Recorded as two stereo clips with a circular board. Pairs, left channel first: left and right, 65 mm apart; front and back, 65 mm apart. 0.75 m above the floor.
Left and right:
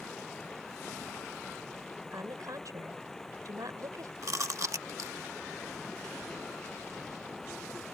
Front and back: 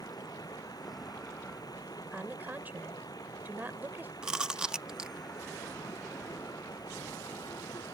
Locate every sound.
0.0 s running water: 5° left
2.1 s a woman speaking: 120° right
4.2 s chewing: 105° right